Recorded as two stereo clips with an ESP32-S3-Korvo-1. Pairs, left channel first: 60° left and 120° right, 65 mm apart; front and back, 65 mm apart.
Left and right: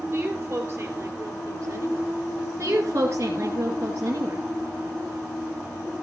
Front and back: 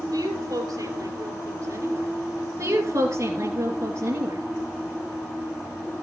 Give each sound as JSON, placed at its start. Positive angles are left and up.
{"t": 0.1, "sound": "a woman speaking", "azimuth_deg": -175, "distance_m": 4.0}
{"t": 2.6, "sound": "a woman speaking", "azimuth_deg": -165, "distance_m": 2.0}